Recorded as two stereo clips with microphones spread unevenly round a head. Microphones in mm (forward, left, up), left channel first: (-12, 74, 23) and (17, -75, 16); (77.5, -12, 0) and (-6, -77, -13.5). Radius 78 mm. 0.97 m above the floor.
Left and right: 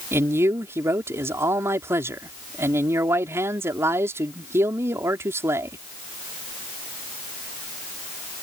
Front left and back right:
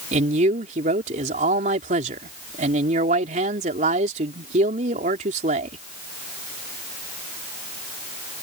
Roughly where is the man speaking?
Behind right.